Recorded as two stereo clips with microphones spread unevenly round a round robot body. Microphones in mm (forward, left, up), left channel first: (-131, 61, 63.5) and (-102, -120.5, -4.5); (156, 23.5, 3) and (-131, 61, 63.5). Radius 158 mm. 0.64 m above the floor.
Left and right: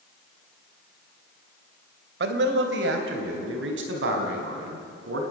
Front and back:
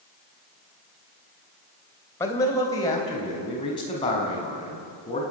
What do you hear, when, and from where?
2.2 s a man speaking: 85° right, 2.5 m; by 5.2 s 80° right, 5 m